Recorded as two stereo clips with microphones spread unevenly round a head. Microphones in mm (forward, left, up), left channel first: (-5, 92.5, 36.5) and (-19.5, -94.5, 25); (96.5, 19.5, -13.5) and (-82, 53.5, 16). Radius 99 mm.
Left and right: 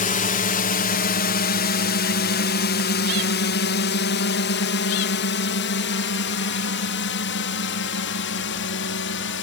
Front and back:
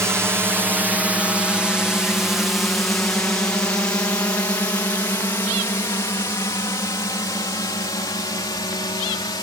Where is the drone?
90° left; by 9.4 s 55° left.